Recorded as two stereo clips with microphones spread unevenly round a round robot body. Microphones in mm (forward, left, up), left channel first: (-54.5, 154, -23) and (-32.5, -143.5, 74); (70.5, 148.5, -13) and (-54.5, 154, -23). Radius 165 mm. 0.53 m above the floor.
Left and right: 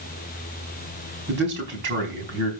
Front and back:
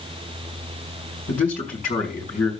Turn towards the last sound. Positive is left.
turn(degrees=-25)